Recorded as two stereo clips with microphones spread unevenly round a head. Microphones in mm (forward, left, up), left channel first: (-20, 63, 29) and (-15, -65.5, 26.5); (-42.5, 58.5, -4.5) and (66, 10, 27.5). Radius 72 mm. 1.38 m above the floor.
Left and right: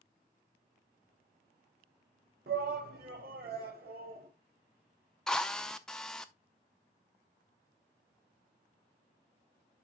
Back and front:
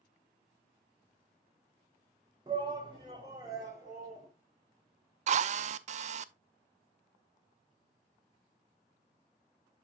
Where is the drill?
5° left, 0.5 m.